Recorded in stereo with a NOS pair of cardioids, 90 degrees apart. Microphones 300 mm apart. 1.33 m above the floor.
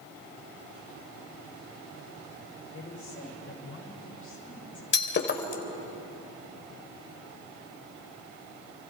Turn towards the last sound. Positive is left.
turn(degrees=40)